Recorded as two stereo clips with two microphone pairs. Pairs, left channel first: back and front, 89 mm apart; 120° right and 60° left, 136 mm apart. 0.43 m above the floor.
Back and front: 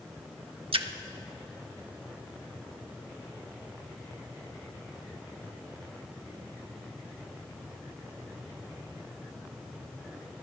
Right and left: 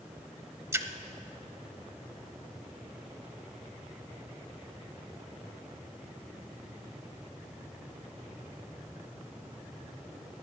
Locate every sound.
0.7 s a splash: 10° right, 0.5 m